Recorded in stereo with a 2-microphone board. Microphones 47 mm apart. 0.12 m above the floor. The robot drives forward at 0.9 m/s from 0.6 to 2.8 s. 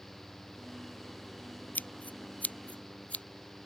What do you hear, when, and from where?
1.8 s scissors: 40° left (ahead or behind); by 3.2 s 30° left (ahead or behind)